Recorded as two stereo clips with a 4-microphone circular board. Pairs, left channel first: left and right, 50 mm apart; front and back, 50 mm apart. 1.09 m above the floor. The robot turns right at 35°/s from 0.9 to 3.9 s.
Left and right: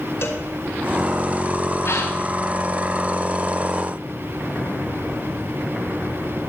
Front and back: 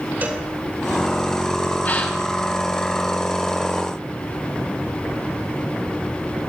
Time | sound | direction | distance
0.2 | a cowbell | 125° left | 3.5 m
1.9 | a gasp | 55° left | 4 m